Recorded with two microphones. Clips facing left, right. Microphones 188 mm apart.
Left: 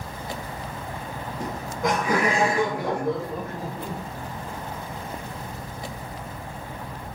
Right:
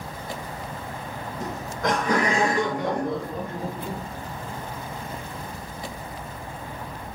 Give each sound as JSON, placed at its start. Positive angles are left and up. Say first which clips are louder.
{"t": 1.4, "sound": "laughter", "louder": "left 1 dB", "side_deg": 10, "distance_m": 3.5}